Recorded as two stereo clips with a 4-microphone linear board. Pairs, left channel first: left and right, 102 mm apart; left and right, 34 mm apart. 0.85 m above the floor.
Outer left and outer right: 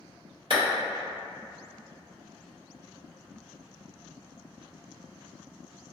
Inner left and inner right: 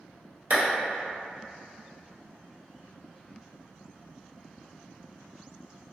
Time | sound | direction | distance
0.5 | a clap | 50° right (ahead or behind) | 1.0 m